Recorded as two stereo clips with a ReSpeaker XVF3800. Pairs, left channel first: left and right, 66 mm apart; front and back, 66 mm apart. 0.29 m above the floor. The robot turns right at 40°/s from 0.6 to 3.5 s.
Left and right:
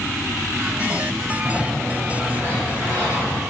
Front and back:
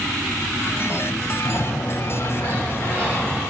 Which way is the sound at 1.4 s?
10° left.